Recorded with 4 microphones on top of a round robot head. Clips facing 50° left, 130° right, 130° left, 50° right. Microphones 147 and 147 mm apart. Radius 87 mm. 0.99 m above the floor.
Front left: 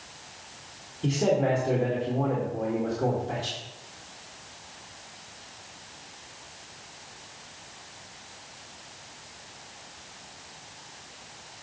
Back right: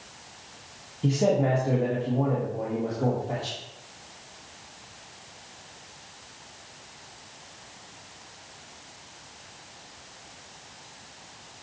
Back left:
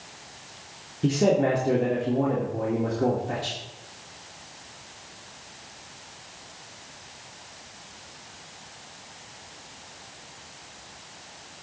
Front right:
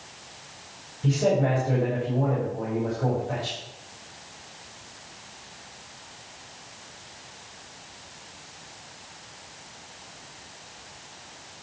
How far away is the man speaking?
About 1.8 m.